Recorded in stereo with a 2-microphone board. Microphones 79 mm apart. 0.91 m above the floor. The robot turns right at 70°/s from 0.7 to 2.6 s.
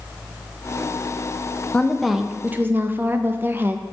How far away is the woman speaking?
About 0.5 m.